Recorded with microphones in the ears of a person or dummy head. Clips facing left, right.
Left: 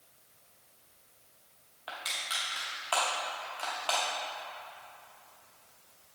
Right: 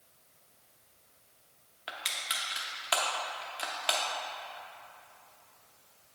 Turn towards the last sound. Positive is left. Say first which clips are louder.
# left 1 dB
turn(degrees=-25)  # may be behind; listen again after turning